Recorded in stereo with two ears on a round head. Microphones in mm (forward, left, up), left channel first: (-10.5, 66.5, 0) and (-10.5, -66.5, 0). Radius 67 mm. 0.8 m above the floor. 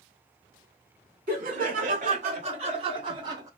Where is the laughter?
65° right (ahead or behind), 2.5 m; by 3.5 s 25° right (ahead or behind), 1.6 m.